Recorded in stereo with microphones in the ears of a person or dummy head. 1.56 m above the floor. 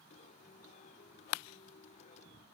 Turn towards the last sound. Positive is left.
turn(degrees=45)  # may be behind; listen again after turning